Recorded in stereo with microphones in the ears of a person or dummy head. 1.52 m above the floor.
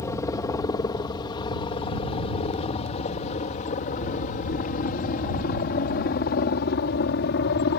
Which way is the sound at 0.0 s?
15° left (ahead or behind).